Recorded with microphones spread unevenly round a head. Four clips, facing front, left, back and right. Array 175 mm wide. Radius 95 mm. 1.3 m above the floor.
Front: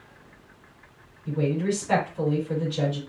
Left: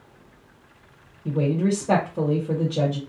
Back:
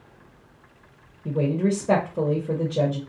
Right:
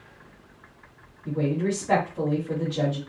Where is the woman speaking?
150° left, 1.5 m.